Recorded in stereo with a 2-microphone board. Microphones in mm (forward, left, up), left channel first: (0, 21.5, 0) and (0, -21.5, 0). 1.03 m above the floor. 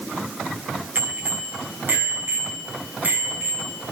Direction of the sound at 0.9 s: 45° right (ahead or behind).